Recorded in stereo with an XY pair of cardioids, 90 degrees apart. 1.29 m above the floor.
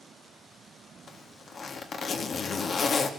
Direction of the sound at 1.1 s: 55° left.